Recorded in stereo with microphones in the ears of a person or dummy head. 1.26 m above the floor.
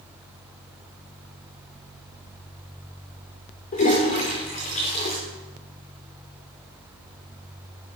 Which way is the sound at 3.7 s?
40° left (ahead or behind).